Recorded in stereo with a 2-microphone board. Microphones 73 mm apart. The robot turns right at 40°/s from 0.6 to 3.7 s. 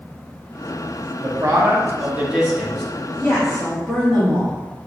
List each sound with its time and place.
1.2 s a man speaking: 65° right, 1.0 m; by 2.9 s 5° left, 1.0 m
3.2 s a woman speaking: 15° right (ahead or behind), 1.3 m; by 4.6 s 5° left (ahead or behind), 1.3 m